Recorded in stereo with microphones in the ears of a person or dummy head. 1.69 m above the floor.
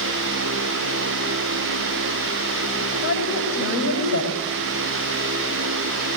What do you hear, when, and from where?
3.0 s a woman speaking: 80° left, 8.5 m